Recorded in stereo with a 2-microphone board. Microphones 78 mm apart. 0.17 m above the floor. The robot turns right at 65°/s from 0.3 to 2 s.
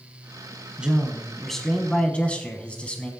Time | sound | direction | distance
0.8 | a man speaking | 15° right (ahead or behind) | 1.1 m